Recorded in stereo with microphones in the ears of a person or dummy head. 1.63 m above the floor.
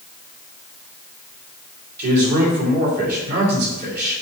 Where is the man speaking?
60° right (ahead or behind), 3.5 m.